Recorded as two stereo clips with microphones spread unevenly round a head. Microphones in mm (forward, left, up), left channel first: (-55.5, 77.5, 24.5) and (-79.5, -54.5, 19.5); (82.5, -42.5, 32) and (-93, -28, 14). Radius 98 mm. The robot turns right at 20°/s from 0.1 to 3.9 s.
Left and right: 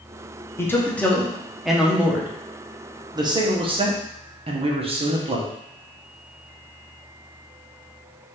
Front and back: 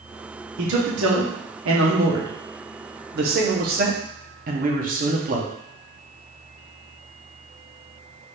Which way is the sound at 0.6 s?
150° left.